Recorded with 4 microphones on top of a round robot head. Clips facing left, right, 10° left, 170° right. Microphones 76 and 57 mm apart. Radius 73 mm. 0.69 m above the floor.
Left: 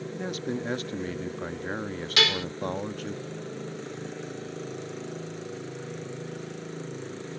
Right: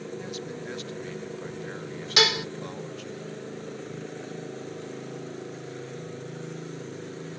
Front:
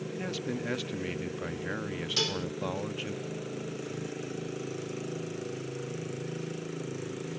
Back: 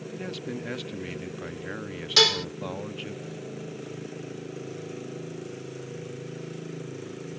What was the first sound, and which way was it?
A man speaking, 95° left.